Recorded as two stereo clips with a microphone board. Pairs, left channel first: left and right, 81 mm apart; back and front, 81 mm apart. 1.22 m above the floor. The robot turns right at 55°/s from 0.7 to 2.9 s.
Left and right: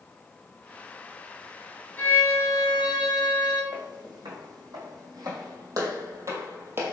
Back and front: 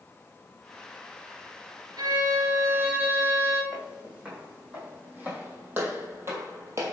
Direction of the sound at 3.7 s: 75° right.